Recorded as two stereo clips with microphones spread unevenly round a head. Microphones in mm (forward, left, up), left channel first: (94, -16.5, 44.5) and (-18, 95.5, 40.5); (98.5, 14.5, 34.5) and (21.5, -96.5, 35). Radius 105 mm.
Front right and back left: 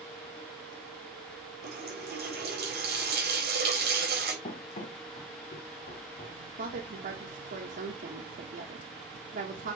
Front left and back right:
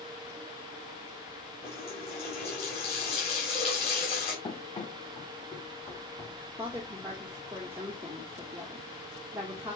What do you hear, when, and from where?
1.6 s a running tap: 115° left, 3.5 m
4.4 s running footsteps: straight ahead, 2.5 m; by 6.4 s 20° right, 4 m
6.6 s a woman speaking: 155° left, 1.3 m